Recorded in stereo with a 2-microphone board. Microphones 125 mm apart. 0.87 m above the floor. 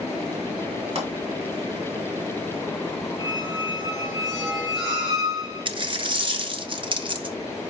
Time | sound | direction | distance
0.9 | a pop | 55° right (ahead or behind) | 2.5 m
3.2 | a squeak | 5° right (ahead or behind) | 3.5 m
5.7 | a dropped coin | 40° right (ahead or behind) | 0.5 m